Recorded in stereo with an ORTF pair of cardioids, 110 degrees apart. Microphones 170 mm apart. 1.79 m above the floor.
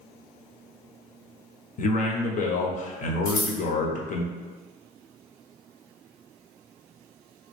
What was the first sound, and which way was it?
A man speaking, 50° left.